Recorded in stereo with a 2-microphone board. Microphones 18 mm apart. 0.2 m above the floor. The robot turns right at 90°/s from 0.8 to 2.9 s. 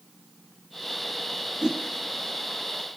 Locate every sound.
1.6 s a whoosh: 60° right (ahead or behind), 0.7 m; by 1.8 s 45° right (ahead or behind), 0.7 m